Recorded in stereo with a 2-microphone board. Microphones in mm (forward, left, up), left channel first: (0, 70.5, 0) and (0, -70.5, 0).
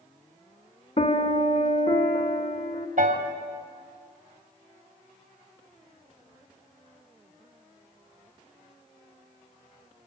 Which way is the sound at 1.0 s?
50° left (ahead or behind).